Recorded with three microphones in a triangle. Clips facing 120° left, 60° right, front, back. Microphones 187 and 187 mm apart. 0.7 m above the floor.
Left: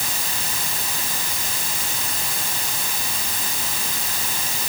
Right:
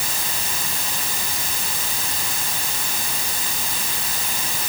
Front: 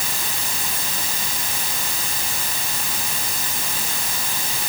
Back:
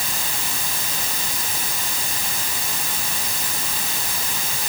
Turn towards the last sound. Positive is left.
No sound to turn to.